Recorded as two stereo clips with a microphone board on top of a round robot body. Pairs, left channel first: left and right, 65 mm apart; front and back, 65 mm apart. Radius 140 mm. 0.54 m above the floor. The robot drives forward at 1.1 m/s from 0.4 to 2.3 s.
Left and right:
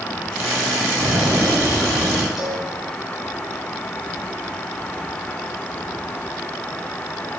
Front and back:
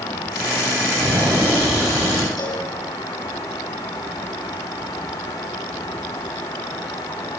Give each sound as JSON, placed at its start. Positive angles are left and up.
{"t": 1.0, "sound": "an explosion", "azimuth_deg": -130, "distance_m": 5.0}
{"t": 2.4, "sound": "a cowbell", "azimuth_deg": -5, "distance_m": 5.0}